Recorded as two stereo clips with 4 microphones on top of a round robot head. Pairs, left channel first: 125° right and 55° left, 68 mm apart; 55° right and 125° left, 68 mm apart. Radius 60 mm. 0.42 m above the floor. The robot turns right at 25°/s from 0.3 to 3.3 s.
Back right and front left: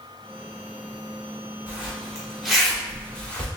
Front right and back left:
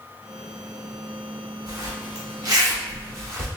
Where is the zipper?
120° left, 1.6 m; by 3.5 s 165° left, 1.6 m.